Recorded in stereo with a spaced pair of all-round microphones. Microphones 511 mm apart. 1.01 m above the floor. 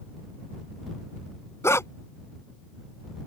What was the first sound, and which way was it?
A dog barking, 5° left (ahead or behind).